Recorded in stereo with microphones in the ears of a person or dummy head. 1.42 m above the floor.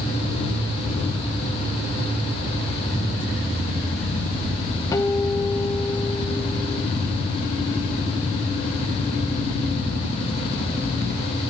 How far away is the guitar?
About 0.9 m.